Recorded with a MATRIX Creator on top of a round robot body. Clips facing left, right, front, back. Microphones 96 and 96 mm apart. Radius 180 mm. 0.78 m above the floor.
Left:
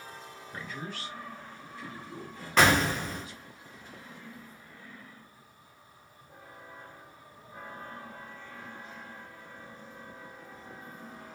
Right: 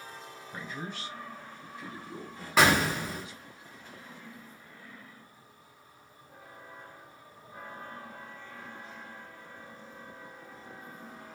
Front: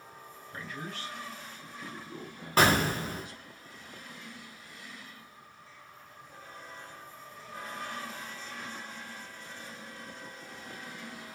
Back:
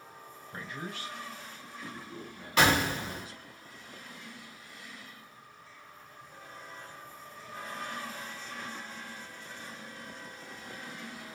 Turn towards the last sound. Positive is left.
turn(degrees=-10)